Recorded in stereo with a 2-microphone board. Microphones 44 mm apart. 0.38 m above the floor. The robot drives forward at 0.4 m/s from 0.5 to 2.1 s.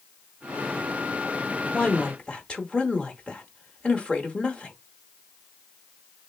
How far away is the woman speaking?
About 0.8 m.